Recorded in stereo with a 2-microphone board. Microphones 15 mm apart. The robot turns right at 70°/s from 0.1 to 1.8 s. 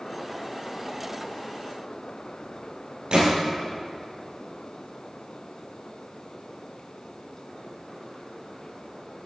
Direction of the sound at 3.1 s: 60° right (ahead or behind).